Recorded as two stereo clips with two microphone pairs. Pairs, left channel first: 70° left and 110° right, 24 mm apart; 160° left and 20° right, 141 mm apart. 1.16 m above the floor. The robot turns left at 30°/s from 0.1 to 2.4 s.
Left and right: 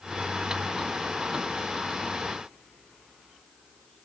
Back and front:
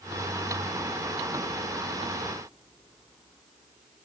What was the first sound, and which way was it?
Only background noise.